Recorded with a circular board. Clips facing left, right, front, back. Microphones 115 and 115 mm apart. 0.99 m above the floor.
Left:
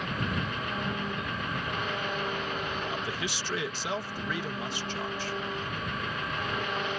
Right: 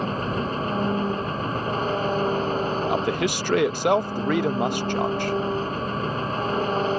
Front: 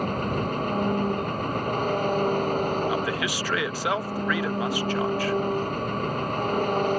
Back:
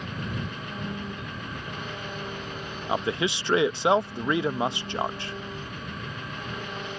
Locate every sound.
0.0 s an engine running: 40° right
2.9 s a man speaking: 115° right